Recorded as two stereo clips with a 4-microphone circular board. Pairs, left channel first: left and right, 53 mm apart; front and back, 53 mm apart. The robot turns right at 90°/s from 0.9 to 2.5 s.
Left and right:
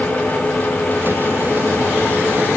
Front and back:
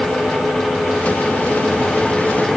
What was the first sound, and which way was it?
Only background noise.